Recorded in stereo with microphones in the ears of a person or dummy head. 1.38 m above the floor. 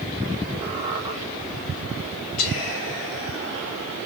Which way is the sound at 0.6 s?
25° right (ahead or behind).